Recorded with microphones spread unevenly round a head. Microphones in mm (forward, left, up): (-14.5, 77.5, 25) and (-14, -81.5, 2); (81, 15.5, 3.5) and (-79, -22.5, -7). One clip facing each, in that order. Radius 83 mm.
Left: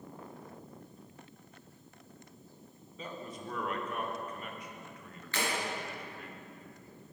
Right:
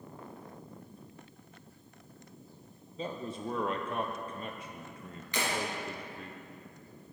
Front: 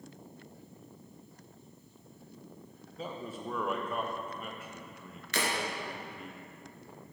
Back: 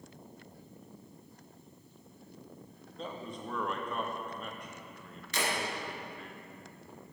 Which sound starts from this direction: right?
A man speaking, at 3.0 s.